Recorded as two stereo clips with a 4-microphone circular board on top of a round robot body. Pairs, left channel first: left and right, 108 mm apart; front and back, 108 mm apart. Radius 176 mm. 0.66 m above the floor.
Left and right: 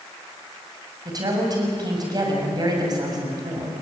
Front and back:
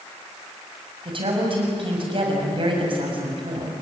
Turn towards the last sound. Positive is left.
turn(degrees=-140)